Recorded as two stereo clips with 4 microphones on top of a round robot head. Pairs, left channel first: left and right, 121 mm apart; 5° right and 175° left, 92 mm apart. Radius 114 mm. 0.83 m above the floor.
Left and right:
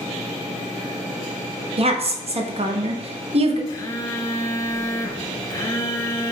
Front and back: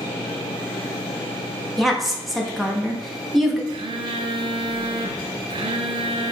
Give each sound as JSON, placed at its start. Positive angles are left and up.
{"t": 1.8, "sound": "a woman speaking", "azimuth_deg": -95, "distance_m": 0.9}
{"t": 3.7, "sound": "a phone buzzing", "azimuth_deg": 155, "distance_m": 0.7}